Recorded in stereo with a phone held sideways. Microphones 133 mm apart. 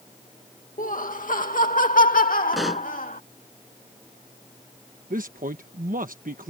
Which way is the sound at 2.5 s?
Centre (ahead or behind).